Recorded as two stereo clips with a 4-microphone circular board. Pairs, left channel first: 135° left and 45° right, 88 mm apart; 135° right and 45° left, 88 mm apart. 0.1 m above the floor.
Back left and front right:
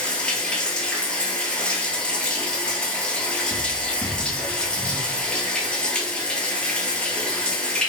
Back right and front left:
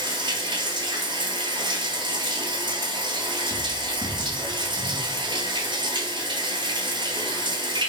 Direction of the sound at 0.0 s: 60° left.